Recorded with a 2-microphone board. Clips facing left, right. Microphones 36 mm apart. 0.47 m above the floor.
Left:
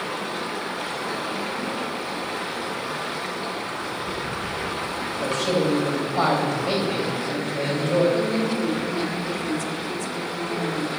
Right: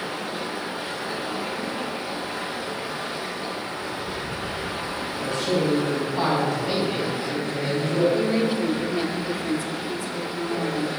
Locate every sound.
0.0 s running water: 65° left (ahead or behind), 2 m
5.2 s a man speaking: 65° left (ahead or behind), 2.5 m
8.1 s a woman speaking: 20° right (ahead or behind), 0.7 m